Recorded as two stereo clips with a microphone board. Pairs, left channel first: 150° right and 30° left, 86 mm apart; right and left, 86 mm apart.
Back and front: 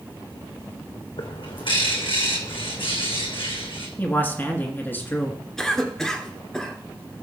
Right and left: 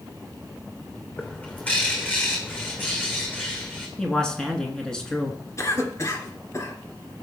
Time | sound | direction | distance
1.2 | a bird | 160° right | 2 m
4.0 | a man speaking | 160° right | 1.6 m
5.6 | a cough | 70° right | 2 m